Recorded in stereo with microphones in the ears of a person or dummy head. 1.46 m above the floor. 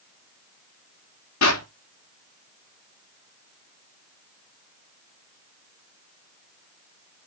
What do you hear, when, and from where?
1.4 s a clap: 90° left, 4 m